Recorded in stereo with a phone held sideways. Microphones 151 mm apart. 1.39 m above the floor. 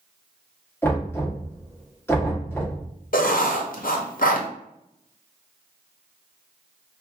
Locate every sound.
0.8 s knocking: 15° left (ahead or behind), 1.5 m
3.1 s writing: 65° left (ahead or behind), 0.6 m